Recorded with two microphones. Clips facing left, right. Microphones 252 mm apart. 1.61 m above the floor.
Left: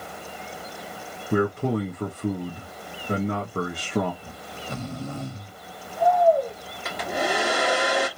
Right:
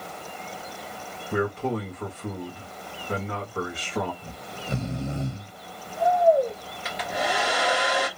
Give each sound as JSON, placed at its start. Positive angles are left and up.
{"t": 1.3, "sound": "a man speaking", "side_deg": 45, "distance_m": 1.0}
{"t": 4.2, "sound": "snoring", "side_deg": -25, "distance_m": 0.8}
{"t": 6.8, "sound": "a hair dryer", "side_deg": 50, "distance_m": 1.6}